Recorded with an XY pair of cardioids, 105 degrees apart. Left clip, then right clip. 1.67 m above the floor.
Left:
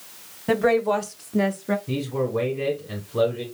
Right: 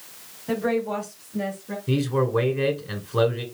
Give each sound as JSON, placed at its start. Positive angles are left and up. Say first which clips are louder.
{"t": 0.5, "sound": "a woman speaking", "louder": "left 5 dB", "azimuth_deg": 55, "distance_m": 1.2}
{"t": 1.9, "sound": "a man speaking", "louder": "right 2 dB", "azimuth_deg": -55, "distance_m": 1.4}